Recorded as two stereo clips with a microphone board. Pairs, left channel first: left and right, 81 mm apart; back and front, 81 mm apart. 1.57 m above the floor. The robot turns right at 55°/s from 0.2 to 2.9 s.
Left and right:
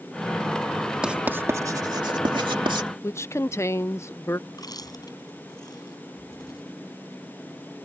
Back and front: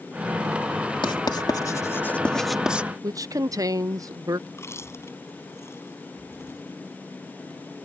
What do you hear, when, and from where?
1.0 s writing: 170° right; by 2.9 s 65° right
3.0 s a woman speaking: 40° left
4.5 s chewing: 125° left